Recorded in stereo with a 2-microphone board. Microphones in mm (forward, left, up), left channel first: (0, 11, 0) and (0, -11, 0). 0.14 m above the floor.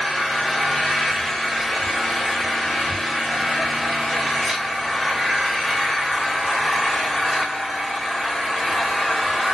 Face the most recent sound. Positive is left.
turn(degrees=10)  # may be behind; listen again after turning